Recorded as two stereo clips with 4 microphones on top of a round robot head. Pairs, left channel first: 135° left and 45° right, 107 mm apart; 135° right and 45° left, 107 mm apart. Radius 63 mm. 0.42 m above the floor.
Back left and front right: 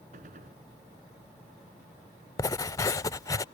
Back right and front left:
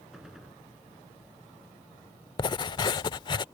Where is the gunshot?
40° right.